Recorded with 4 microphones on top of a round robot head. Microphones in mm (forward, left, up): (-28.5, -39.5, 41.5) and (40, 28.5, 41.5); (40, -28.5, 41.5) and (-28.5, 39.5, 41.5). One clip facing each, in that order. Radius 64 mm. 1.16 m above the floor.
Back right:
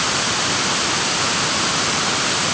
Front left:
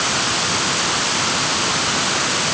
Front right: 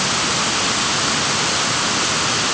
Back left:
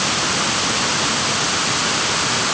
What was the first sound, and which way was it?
Only background noise.